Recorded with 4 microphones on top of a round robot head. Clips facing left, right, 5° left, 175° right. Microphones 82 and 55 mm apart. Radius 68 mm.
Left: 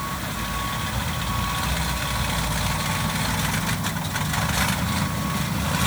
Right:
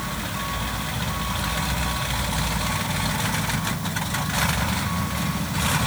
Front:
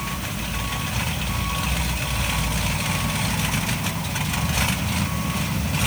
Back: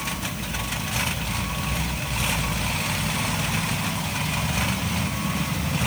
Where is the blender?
No blender in this recording.